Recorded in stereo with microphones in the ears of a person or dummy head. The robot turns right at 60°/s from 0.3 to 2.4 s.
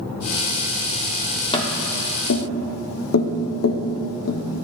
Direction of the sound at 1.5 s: 30° left (ahead or behind).